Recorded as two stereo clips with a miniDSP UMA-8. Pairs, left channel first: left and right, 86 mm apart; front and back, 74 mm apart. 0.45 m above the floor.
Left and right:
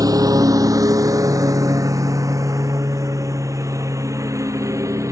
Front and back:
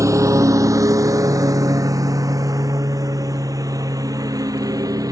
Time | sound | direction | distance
0.0 | a lawn mower | 135° right | ?